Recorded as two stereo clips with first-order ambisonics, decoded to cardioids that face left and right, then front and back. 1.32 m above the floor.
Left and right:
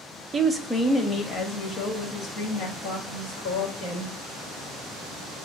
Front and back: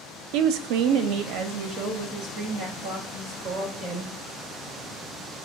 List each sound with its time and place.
0.3 s a woman speaking: 165° right, 0.6 m; by 4.1 s 125° left, 2 m